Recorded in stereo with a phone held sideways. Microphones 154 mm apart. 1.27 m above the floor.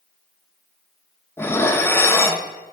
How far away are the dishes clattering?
About 0.6 m.